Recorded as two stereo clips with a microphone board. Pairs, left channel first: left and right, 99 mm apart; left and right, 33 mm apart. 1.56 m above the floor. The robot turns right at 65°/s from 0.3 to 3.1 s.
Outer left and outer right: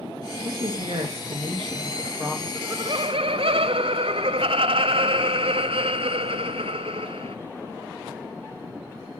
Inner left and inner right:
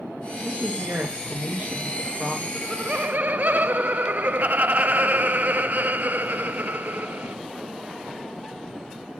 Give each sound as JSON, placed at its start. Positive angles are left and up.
{"t": 0.4, "sound": "a woman speaking", "azimuth_deg": -135, "distance_m": 1.9}
{"t": 2.5, "sound": "laughter", "azimuth_deg": -150, "distance_m": 0.6}